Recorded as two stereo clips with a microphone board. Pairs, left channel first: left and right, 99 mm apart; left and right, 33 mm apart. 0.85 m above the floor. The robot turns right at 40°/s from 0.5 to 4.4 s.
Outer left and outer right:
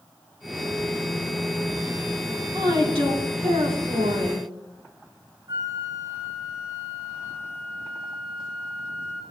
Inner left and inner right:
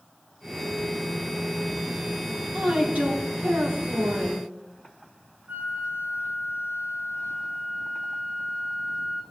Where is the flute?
50° right (ahead or behind), 2.0 m.